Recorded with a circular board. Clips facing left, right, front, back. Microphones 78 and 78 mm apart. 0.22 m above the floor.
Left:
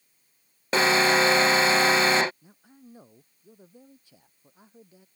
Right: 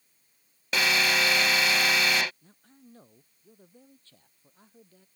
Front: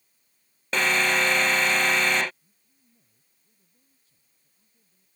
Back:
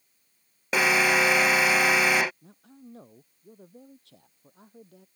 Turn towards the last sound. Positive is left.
turn(degrees=165)